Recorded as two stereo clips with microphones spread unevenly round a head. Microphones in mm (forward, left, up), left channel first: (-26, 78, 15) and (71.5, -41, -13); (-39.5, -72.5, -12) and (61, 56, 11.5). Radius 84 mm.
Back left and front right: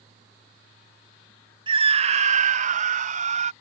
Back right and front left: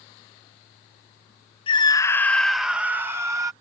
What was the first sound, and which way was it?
A scream, 90° right.